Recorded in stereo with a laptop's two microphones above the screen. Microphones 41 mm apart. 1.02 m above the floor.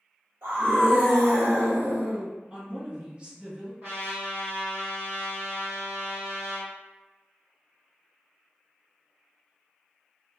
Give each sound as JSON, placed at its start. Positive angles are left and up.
{"t": 0.4, "sound": "a scream", "side_deg": -70, "distance_m": 1.3}
{"t": 2.5, "sound": "a woman speaking", "side_deg": -30, "distance_m": 1.4}
{"t": 3.8, "sound": "a trumpet", "side_deg": -55, "distance_m": 1.9}